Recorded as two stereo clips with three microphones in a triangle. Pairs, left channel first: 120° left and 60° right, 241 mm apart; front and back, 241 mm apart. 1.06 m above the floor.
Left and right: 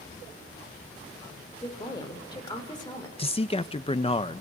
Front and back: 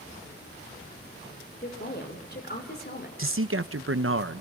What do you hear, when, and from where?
1.6 s a woman speaking: 50° left, 4 m
3.2 s a man speaking: 175° right, 1.0 m